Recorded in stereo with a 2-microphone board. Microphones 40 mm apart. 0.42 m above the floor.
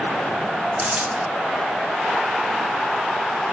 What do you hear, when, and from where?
0.8 s a dropped coin: 45° right (ahead or behind), 2.5 m